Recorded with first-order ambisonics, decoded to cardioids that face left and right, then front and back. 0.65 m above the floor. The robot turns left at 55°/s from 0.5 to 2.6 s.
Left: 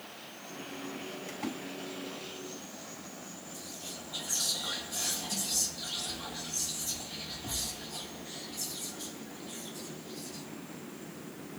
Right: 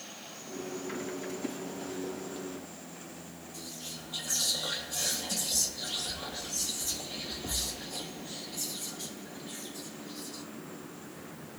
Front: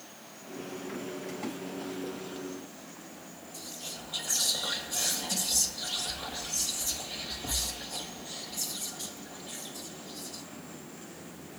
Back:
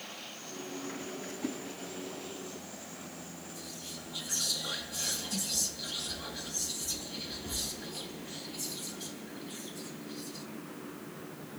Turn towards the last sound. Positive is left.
turn(degrees=-35)